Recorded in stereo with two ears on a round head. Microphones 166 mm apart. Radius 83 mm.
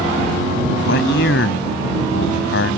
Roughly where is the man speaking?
Left.